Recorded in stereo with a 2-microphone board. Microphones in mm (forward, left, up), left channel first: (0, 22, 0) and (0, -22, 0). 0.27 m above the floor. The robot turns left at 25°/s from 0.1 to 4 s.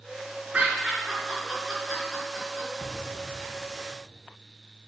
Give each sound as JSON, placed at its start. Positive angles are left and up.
{"t": 0.5, "sound": "laughter", "side_deg": -25, "distance_m": 4.0}
{"t": 2.8, "sound": "an explosion", "azimuth_deg": 130, "distance_m": 1.0}